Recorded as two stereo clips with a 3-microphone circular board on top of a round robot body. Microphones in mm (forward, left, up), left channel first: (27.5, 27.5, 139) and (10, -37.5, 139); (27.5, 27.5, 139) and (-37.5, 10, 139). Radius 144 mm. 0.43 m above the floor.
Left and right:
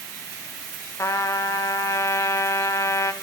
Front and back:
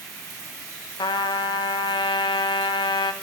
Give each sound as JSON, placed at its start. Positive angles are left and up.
{"t": 1.0, "sound": "a trumpet", "azimuth_deg": 25, "distance_m": 0.7}